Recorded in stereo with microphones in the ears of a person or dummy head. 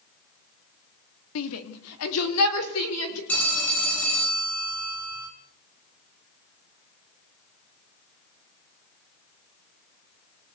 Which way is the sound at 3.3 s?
5° left (ahead or behind).